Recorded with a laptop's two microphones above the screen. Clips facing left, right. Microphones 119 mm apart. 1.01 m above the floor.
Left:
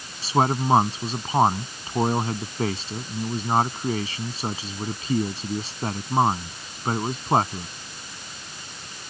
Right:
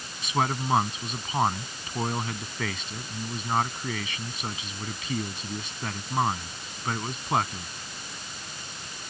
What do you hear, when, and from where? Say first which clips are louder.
0.2 s a man speaking: left 6 dB; 35° left (ahead or behind)